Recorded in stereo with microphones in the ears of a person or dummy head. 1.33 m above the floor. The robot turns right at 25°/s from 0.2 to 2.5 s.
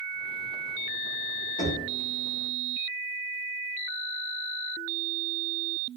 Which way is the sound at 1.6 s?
25° left (ahead or behind).